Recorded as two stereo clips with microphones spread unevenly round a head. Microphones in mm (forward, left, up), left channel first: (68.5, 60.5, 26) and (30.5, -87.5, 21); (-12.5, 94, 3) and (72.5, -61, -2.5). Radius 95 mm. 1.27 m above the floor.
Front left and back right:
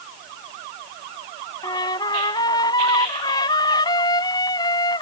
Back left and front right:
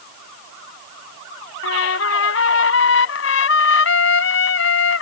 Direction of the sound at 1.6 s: 145° left.